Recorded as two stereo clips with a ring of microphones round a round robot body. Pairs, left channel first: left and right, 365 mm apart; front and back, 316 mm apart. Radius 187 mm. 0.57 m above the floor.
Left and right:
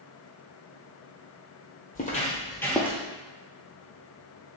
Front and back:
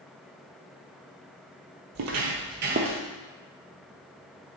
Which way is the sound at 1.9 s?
155° left.